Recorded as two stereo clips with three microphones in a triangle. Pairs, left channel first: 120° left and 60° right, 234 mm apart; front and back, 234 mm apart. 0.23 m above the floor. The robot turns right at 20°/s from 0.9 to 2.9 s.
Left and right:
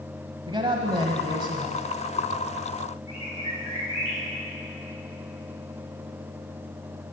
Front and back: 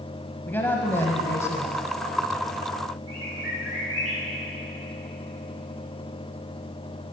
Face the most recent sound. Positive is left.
turn(degrees=180)